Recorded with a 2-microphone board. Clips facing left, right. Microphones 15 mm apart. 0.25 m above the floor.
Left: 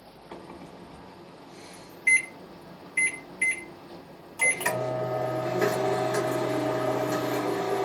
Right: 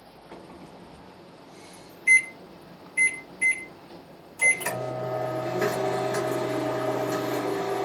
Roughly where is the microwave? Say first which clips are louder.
Left 2 dB; left.